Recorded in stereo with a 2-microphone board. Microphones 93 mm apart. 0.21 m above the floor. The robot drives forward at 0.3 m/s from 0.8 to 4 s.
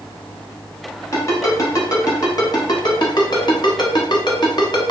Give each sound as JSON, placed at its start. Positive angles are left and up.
{"t": 1.1, "sound": "a ringtone", "side_deg": 30, "distance_m": 1.0}